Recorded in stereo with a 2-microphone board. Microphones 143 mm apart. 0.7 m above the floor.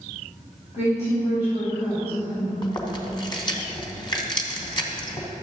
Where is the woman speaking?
50° left (ahead or behind), 3 m.